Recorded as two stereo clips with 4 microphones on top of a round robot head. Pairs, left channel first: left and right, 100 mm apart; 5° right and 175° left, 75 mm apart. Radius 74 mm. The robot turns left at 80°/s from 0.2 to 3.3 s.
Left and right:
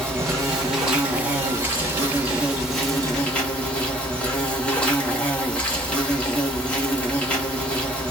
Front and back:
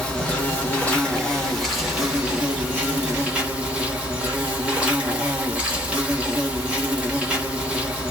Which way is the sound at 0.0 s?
30° left.